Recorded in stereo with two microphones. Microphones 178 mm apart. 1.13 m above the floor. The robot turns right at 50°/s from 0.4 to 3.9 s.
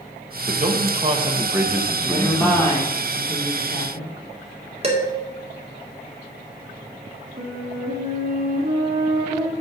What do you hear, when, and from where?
0.5 s a man speaking: 70° right, 1.1 m; by 2.8 s 45° left, 1.1 m
2.0 s a woman speaking: 15° right, 3 m; by 4.7 s 80° left, 3 m
4.8 s dishes clattering: 35° right (ahead or behind), 1.9 m
7.4 s a flute: 60° right (ahead or behind), 1.9 m